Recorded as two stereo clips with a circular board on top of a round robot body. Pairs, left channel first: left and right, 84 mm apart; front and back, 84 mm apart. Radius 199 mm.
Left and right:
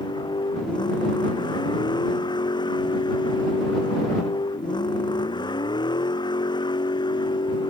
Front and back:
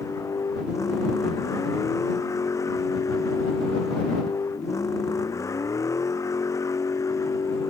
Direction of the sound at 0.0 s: 55° left.